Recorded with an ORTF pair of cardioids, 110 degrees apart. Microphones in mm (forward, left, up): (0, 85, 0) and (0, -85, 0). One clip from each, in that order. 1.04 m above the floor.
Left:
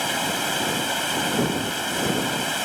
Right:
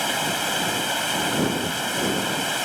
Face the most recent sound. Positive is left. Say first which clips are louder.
# even
turn(degrees=-5)